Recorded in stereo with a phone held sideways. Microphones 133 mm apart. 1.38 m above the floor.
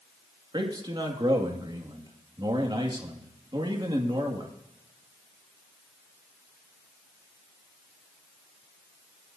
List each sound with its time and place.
0.5 s a man speaking: 35° right (ahead or behind), 2 m